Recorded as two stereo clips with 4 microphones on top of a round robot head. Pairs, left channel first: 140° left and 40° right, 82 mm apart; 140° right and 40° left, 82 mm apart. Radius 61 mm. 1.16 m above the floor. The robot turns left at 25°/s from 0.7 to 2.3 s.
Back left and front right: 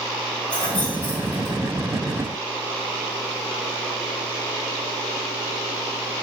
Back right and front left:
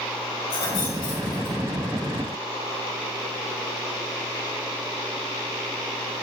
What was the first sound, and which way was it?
Keys jangling, 145° right.